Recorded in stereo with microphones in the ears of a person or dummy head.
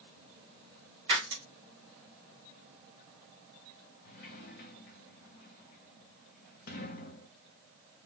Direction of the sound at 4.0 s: 50° left (ahead or behind).